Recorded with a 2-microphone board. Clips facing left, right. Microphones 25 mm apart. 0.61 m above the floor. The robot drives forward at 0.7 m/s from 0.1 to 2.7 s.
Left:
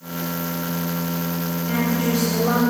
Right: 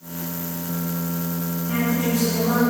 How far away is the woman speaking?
About 4 m.